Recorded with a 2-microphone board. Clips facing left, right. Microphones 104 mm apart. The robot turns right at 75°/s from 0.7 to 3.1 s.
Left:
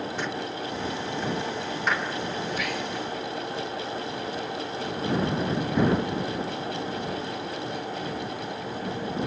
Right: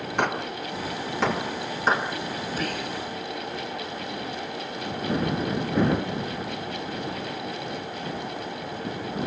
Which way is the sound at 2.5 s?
145° right.